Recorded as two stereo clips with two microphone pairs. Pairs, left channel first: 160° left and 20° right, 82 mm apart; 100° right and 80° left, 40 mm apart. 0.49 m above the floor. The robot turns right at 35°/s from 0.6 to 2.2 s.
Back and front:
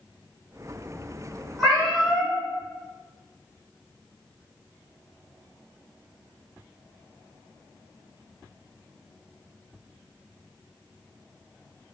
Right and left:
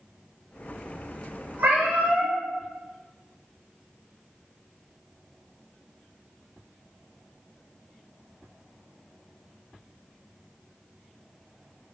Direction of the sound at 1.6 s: 65° left.